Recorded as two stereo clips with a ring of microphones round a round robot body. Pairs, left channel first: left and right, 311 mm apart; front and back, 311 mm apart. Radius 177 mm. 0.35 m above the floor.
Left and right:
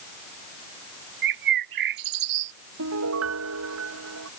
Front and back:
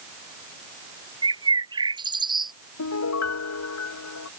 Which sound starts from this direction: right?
A bird, at 1.2 s.